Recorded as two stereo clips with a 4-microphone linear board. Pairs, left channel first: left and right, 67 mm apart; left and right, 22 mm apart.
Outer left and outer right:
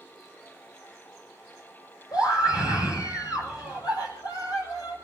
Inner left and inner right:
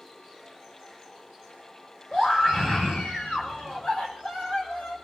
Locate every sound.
2.1 s a scream: 75° left (ahead or behind), 6.5 m